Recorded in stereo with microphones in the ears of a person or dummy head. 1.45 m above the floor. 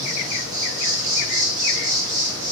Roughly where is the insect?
Right.